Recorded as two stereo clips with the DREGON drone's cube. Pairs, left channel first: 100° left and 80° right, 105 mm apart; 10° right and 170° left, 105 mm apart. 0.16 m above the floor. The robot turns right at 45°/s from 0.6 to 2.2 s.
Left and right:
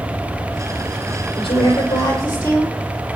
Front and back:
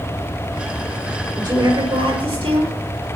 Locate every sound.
1.4 s a woman speaking: 120° left, 5.5 m; by 2.8 s 160° left, 5.5 m